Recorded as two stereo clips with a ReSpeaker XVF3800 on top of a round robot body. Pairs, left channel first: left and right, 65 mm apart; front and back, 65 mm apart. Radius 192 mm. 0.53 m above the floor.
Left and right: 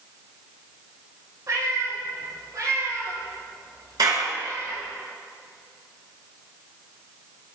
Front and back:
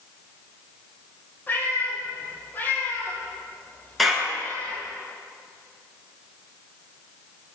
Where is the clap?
90° right, 7.5 m.